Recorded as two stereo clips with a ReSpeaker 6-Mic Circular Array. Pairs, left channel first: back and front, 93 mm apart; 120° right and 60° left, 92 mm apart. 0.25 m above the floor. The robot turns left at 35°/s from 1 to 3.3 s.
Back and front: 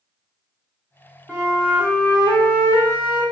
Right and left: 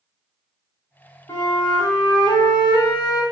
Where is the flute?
85° right, 1.5 m; by 3.2 s 155° right, 1.5 m.